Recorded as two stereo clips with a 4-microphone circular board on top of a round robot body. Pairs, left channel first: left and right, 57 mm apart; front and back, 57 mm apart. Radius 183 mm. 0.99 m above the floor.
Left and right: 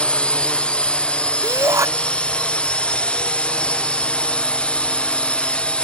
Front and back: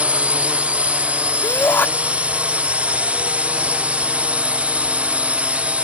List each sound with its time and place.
0.0 s a drone: 140° left
1.4 s a shout: 55° right